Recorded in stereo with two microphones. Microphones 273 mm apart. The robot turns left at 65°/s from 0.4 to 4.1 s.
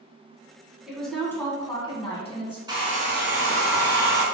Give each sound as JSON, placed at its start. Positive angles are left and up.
{"t": 0.9, "sound": "a woman speaking", "side_deg": 0, "distance_m": 1.1}
{"t": 2.7, "sound": "a hair dryer", "azimuth_deg": -20, "distance_m": 0.9}